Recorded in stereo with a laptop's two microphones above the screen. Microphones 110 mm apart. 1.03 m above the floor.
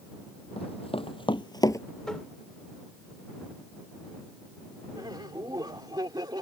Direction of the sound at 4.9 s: 40° right (ahead or behind).